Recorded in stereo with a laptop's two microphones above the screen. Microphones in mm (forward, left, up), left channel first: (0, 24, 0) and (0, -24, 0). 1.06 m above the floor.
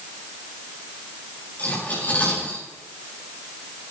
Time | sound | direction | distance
1.6 | cutlery clinking | 40° left (ahead or behind) | 8.5 m